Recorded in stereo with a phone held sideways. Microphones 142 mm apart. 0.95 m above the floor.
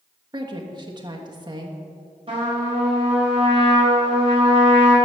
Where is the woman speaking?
30° right (ahead or behind), 1.4 m.